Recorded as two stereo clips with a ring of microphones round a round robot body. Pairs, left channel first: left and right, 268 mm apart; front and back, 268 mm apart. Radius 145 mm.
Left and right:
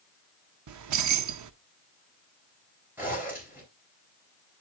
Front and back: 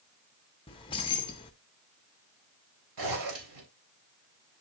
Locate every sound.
0.7 s keys jangling: 75° right, 0.7 m
3.0 s a zipper: 175° right, 3.5 m